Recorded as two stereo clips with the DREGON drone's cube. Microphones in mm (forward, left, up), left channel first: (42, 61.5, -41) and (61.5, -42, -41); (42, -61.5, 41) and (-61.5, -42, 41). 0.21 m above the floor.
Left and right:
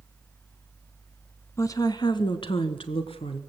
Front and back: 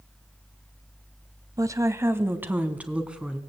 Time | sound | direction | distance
1.6 | a woman speaking | 140° left | 1.2 m